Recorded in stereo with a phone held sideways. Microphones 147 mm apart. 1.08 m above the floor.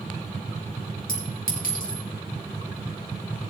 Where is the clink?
70° left (ahead or behind), 3.5 m.